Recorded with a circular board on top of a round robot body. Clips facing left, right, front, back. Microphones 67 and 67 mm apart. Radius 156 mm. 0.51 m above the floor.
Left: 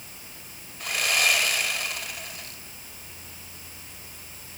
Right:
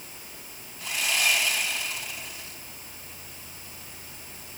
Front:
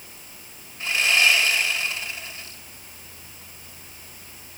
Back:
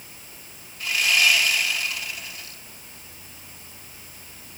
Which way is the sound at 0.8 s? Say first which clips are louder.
Left 2 dB, front 1 dB; 65° left.